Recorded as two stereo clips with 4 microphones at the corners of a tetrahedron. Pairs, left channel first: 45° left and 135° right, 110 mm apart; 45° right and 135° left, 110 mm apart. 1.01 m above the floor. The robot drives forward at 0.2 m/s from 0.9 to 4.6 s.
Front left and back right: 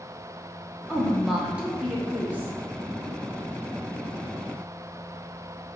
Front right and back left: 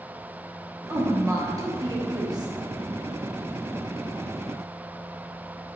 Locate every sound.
0.9 s a woman speaking: 135° left, 0.7 m; by 2.5 s 160° left, 0.9 m